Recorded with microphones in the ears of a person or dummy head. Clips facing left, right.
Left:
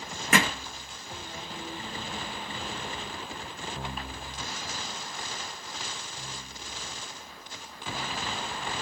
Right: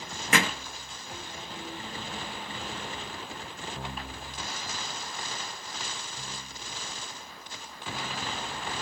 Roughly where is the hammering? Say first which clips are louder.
Left 2 dB; left.